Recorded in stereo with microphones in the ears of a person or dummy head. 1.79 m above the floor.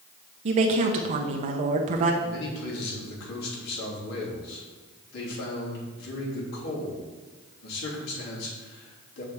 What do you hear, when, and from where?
0.5 s a woman speaking: 40° right (ahead or behind), 0.9 m
2.2 s a man speaking: 60° left (ahead or behind), 3 m